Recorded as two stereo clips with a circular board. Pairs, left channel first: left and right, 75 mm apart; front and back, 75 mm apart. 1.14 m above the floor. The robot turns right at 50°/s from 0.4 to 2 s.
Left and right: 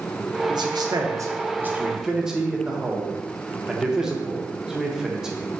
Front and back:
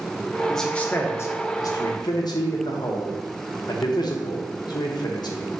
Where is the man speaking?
85° right, 0.8 m; by 5.5 s 10° right, 0.8 m.